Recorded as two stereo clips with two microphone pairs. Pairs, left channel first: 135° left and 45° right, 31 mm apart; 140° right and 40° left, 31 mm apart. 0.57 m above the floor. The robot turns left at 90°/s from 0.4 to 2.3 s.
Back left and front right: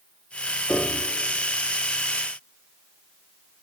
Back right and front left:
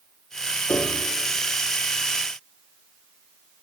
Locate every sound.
0.7 s a piano: 135° right, 3.5 m; by 1.1 s 170° right, 3.5 m